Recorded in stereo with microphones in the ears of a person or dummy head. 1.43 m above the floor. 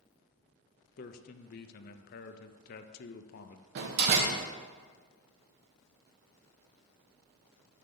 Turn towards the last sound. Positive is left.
turn(degrees=-60)  # may be behind; listen again after turning